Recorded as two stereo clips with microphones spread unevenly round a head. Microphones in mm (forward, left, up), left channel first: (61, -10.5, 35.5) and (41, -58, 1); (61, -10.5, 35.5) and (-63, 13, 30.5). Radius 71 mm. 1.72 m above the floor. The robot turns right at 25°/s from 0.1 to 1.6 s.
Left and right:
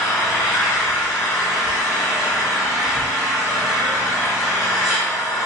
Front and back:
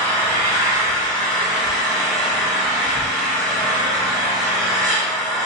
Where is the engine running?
40° left, 1.3 m; by 5.5 s 75° left, 1.3 m.